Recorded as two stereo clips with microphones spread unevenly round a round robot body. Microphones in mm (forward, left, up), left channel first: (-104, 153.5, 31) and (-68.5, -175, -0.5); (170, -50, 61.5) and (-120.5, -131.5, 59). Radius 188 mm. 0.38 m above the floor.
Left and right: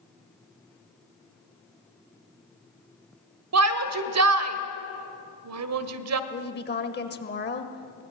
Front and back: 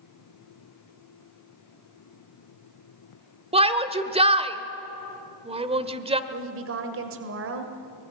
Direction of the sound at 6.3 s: 155° left.